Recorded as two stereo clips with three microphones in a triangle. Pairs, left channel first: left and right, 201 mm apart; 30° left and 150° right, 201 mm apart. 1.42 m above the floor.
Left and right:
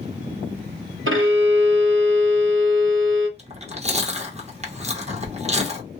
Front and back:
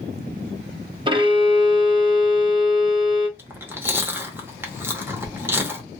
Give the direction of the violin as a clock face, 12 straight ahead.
3 o'clock.